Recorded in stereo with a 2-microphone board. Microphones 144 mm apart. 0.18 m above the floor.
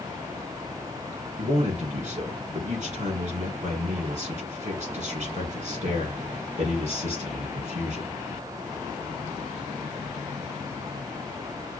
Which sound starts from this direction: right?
A man speaking, at 1.4 s.